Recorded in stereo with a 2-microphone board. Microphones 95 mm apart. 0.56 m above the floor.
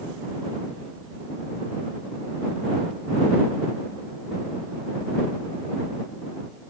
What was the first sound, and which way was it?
Only background noise.